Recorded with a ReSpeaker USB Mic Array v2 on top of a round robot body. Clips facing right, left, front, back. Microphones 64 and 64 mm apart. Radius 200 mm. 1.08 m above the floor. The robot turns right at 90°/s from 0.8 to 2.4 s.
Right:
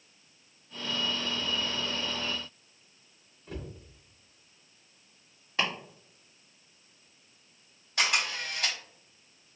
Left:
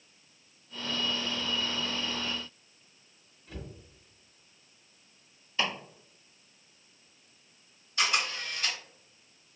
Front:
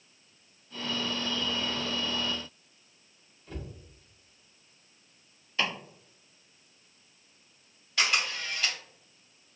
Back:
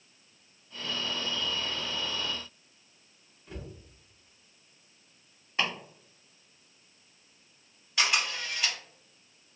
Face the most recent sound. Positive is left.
turn(degrees=-95)